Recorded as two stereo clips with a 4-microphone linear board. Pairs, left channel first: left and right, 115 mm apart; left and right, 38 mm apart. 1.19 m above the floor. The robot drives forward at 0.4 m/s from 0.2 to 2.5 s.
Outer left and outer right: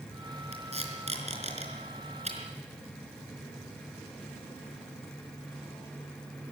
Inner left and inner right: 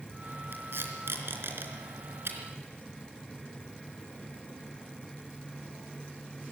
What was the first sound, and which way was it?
Tape being pulled, 70° right (ahead or behind).